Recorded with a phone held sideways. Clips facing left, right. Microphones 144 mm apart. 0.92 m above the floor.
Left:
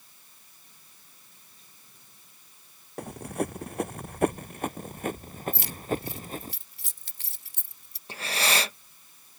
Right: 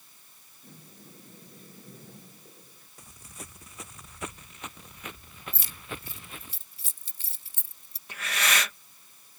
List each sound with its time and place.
0.6 s a sliding door: 55° right (ahead or behind)
3.0 s running footsteps: 65° left (ahead or behind); by 6.5 s 40° left (ahead or behind)
5.5 s keys jangling: 65° left (ahead or behind)
8.1 s breathing: 30° left (ahead or behind)